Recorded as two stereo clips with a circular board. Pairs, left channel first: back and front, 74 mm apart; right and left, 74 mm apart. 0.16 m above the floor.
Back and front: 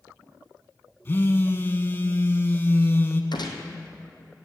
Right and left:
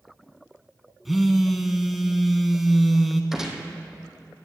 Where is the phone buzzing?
175° left, 0.9 m.